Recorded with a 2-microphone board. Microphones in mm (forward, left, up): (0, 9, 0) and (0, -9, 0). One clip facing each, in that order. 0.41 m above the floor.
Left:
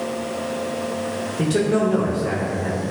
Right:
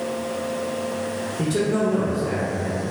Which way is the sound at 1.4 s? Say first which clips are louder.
Left 3 dB; 20° left (ahead or behind).